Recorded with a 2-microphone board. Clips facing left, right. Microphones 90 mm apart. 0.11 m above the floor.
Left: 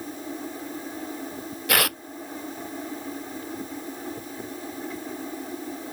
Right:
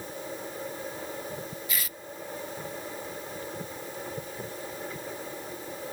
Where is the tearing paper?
75° left (ahead or behind).